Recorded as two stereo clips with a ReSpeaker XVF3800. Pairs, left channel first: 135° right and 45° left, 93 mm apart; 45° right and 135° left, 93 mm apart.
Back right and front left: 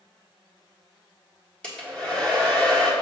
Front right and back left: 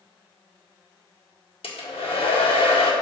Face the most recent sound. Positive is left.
turn(degrees=-55)